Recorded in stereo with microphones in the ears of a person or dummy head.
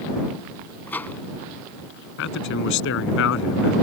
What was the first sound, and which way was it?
A microwave, 10° left (ahead or behind).